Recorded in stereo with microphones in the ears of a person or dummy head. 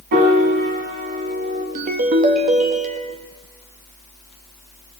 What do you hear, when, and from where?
0.1 s a piano: 50° right (ahead or behind), 5.5 m
1.8 s a ringtone: 45° right (ahead or behind), 1.8 m